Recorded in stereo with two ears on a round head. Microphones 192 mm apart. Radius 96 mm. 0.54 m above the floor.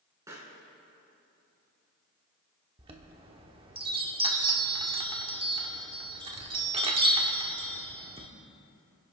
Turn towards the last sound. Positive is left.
turn(degrees=-25)  # may be behind; listen again after turning